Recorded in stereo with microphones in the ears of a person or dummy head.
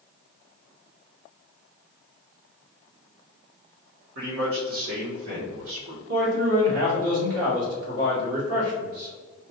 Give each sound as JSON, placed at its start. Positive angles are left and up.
{"t": 4.2, "sound": "a man speaking", "side_deg": -70, "distance_m": 1.9}
{"t": 6.1, "sound": "a man speaking", "side_deg": -70, "distance_m": 2.0}